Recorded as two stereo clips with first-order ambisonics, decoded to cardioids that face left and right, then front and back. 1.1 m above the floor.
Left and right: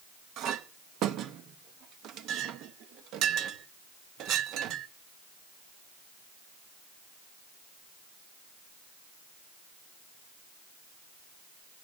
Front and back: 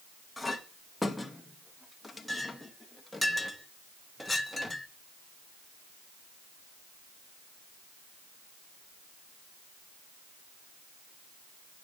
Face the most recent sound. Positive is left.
turn(degrees=-85)